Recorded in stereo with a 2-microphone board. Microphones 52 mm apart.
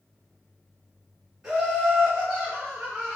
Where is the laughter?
10° right (ahead or behind), 1.3 m.